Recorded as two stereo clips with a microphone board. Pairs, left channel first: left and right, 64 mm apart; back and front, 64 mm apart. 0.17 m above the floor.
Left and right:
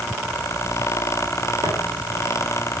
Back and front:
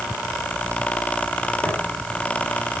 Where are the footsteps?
95° right, 9 m.